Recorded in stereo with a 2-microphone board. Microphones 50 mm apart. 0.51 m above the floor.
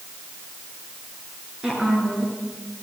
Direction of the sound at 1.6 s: 15° right (ahead or behind).